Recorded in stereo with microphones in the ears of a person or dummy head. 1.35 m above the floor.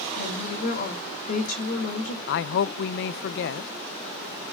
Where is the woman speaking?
50° left (ahead or behind), 2.5 m.